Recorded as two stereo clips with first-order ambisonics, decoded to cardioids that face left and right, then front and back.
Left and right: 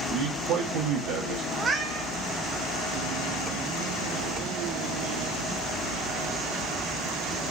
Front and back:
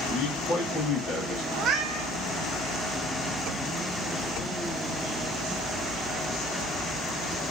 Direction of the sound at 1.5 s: 150° right.